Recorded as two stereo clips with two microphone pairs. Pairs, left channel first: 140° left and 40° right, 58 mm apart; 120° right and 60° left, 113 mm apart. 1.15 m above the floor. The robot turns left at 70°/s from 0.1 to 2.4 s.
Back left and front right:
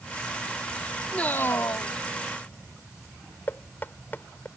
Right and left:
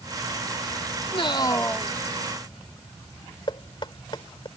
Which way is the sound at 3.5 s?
165° right.